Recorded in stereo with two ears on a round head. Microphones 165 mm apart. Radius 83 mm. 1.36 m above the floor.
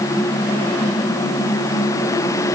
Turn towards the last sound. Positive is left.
No sound to turn to.